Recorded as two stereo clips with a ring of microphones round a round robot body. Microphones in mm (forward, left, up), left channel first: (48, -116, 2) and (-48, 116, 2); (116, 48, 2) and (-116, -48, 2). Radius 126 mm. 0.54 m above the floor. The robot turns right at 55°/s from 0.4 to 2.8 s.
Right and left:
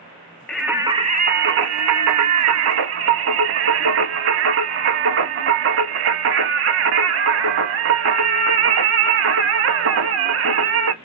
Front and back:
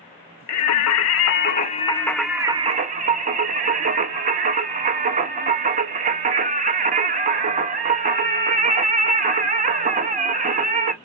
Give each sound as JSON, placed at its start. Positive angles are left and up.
{"t": 0.5, "sound": "singing", "azimuth_deg": 20, "distance_m": 0.6}